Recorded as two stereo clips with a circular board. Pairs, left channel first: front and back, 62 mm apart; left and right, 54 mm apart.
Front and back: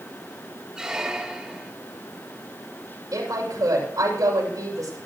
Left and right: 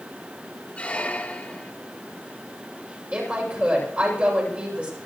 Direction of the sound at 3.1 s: 150° right.